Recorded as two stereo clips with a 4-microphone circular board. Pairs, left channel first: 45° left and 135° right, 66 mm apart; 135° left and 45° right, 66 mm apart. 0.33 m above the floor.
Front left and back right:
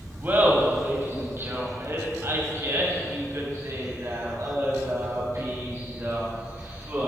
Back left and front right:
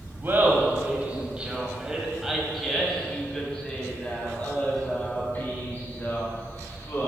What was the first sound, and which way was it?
Laughter, 90° right.